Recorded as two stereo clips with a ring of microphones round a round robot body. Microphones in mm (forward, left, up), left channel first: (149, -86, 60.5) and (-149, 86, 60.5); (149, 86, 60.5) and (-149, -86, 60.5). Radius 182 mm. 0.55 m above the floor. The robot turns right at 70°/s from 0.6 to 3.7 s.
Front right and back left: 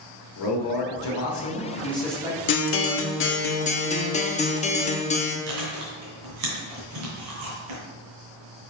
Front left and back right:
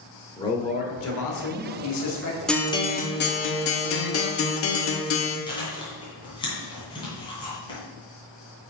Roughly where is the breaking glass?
No breaking glass in this recording.